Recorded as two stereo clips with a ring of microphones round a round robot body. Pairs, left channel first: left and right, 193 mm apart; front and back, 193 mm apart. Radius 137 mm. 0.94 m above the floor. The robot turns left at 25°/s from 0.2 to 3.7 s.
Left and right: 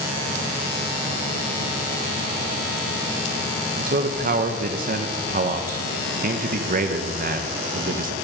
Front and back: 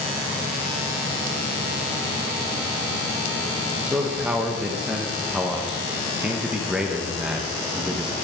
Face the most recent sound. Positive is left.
turn(degrees=-95)